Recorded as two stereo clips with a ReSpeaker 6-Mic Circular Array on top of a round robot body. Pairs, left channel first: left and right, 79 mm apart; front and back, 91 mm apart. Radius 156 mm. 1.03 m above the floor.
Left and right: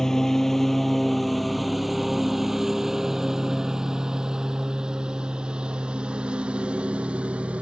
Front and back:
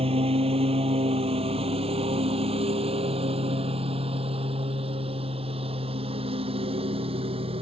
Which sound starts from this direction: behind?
A lawn mower, at 0.0 s.